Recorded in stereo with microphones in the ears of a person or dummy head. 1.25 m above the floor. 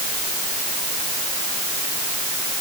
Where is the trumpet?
No trumpet in this recording.